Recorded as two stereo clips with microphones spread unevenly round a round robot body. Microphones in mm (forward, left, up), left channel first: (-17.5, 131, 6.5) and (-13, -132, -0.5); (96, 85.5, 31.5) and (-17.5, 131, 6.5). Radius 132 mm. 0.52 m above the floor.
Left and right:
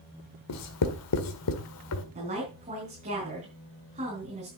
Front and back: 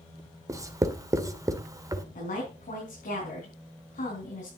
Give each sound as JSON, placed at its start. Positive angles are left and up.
{"t": 0.5, "sound": "writing", "azimuth_deg": 105, "distance_m": 1.7}
{"t": 2.1, "sound": "a woman speaking", "azimuth_deg": -25, "distance_m": 4.5}